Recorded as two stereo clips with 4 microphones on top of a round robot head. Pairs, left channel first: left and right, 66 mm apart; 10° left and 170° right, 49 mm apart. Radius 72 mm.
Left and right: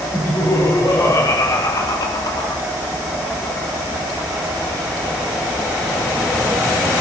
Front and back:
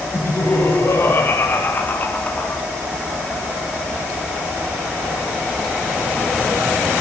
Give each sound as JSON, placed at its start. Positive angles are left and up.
{"t": 0.1, "sound": "laughter", "azimuth_deg": 50, "distance_m": 5.5}